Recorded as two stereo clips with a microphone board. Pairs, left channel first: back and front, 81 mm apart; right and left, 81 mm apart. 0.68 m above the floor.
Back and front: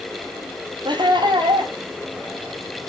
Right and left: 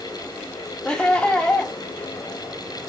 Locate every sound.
0.8 s laughter: 15° right, 5 m